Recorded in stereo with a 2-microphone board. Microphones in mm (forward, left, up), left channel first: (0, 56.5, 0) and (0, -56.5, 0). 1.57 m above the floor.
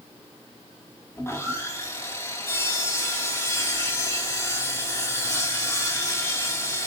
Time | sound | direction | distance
1.2 | sawing | 25° left (ahead or behind) | 2.5 m